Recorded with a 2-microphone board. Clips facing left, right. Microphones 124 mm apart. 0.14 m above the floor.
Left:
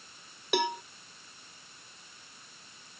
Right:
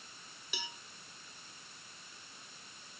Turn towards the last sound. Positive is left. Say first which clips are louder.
# left 19 dB
turn(degrees=65)  # may be behind; listen again after turning